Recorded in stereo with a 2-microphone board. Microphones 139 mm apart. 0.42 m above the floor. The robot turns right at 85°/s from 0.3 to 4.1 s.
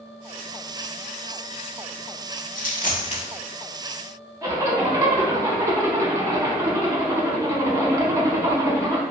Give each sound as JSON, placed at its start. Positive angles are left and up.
{"t": 2.5, "sound": "a dropped coin", "side_deg": 80, "distance_m": 0.7}
{"t": 4.4, "sound": "a zipper", "side_deg": -25, "distance_m": 0.6}